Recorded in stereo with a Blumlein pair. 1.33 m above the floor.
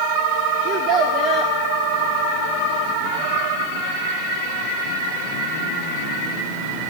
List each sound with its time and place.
0.7 s a child speaking: 35° right, 1.0 m